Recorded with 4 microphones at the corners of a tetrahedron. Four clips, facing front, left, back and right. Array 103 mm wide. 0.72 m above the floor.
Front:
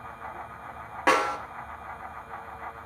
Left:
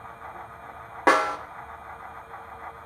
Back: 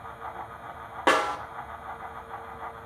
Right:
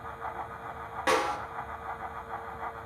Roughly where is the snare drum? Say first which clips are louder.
Left 6 dB, even; left.